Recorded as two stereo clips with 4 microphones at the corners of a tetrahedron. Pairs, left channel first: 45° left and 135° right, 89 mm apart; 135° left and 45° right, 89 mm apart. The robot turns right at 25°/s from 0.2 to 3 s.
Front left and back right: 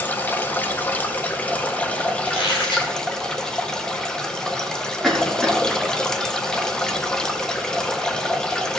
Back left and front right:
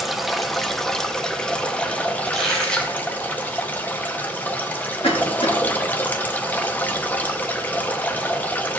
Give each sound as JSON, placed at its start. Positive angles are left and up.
{"t": 0.0, "sound": "running water", "azimuth_deg": 45, "distance_m": 0.8}
{"t": 2.2, "sound": "a squeak", "azimuth_deg": 40, "distance_m": 3.0}
{"t": 5.0, "sound": "a cough", "azimuth_deg": 130, "distance_m": 2.0}